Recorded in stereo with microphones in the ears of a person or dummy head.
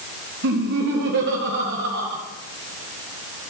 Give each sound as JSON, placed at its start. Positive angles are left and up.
{"t": 0.4, "sound": "laughter", "side_deg": -65, "distance_m": 2.0}